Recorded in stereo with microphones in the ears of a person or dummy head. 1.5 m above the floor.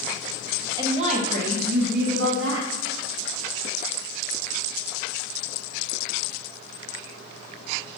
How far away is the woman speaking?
About 1.4 m.